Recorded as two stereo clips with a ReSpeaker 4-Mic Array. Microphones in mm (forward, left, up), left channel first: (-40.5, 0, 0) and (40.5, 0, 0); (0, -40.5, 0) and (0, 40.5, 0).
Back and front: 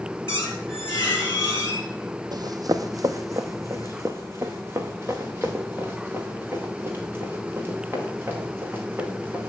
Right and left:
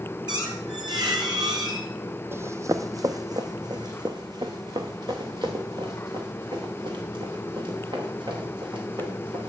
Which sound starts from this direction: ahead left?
Running footsteps, at 2.3 s.